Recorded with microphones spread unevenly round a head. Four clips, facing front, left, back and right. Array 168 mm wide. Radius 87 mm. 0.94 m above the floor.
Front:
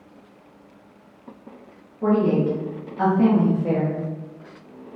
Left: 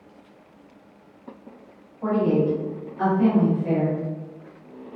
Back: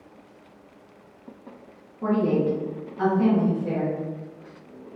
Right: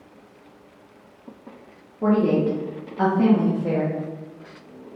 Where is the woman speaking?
100° right, 1.2 m; by 4.0 s 35° right, 1.3 m.